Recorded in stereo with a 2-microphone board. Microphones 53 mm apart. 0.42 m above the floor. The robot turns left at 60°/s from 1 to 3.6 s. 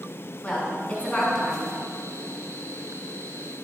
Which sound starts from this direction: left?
A woman speaking, at 0.4 s.